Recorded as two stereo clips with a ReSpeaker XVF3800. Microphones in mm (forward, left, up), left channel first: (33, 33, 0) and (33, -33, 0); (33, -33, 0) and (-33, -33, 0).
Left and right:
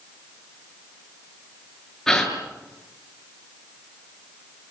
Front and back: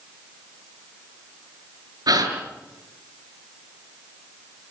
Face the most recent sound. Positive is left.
turn(degrees=170)